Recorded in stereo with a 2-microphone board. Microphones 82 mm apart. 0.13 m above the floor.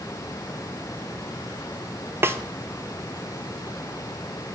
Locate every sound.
2.2 s a snare drum: 30° right (ahead or behind), 0.5 m